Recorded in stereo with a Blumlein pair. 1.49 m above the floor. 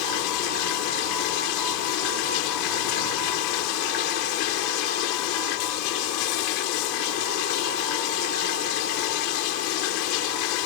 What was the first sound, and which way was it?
Running water, 45° left.